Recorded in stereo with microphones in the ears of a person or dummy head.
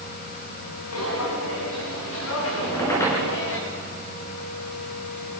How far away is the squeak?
About 6.5 m.